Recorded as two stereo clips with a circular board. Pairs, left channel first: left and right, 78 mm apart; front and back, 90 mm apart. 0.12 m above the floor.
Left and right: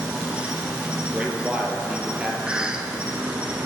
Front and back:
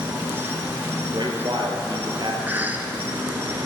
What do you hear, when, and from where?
0.0 s an insect: 145° right, 1.4 m
1.0 s a man speaking: 165° right, 2.5 m
2.5 s a cough: 150° right, 1.1 m